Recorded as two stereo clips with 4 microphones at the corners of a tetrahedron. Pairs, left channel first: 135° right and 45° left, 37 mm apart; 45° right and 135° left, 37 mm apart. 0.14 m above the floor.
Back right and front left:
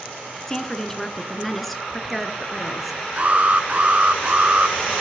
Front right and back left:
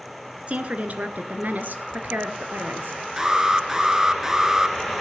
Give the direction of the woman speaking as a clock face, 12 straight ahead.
7 o'clock.